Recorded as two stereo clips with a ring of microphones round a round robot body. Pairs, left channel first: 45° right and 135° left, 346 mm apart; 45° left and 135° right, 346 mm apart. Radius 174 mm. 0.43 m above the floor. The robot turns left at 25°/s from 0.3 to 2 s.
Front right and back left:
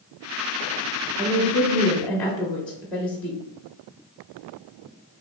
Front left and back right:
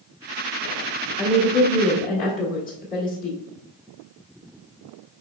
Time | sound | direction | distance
1.2 | a woman speaking | 55° left | 1.1 m